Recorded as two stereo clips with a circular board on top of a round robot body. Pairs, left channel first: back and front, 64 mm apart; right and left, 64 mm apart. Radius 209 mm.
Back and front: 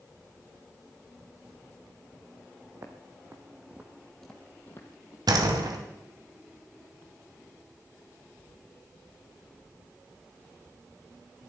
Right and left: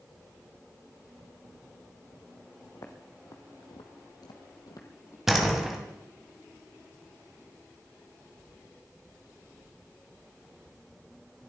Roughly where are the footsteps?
Ahead right.